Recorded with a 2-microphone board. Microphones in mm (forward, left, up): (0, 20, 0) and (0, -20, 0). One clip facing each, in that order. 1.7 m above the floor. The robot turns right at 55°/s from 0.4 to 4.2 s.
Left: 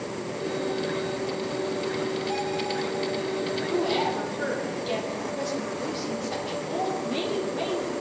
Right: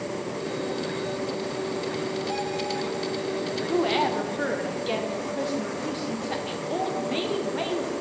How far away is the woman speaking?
About 1.1 m.